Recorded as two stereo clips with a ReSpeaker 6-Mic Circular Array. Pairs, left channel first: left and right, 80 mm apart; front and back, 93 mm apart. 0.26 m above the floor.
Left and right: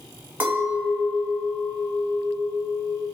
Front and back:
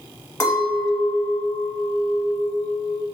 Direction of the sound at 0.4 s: 40° right.